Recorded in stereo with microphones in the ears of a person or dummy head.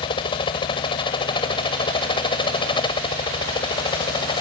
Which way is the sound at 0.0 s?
30° left (ahead or behind).